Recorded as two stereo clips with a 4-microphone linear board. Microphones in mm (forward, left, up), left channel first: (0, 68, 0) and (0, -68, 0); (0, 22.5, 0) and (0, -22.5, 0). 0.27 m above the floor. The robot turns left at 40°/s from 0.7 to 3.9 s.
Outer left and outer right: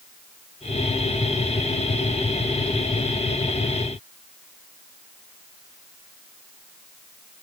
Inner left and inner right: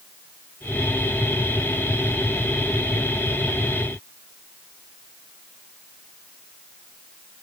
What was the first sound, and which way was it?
Only background noise.